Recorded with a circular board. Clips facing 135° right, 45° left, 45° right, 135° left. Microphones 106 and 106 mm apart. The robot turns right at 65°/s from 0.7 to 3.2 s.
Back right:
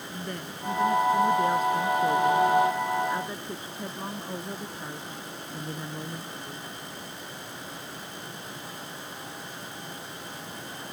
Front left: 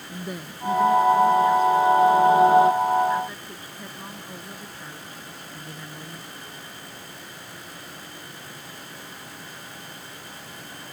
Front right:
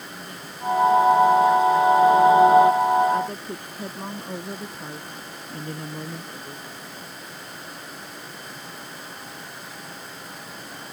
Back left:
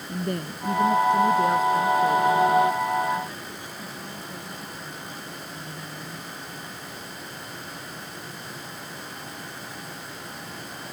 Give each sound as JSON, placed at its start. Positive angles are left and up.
{"t": 0.1, "sound": "a woman speaking", "azimuth_deg": 125}